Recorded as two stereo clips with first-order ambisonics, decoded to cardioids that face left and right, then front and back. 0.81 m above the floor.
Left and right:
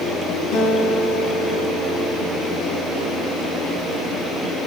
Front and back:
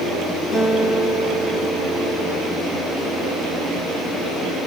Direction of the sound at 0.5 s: 70° left.